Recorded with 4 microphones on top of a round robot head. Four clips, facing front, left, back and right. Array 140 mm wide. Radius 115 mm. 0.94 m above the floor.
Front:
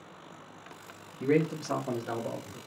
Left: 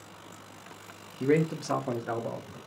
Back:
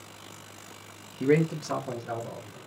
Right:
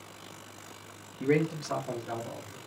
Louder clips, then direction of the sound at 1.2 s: Left 2 dB, back 3 dB; 155° left.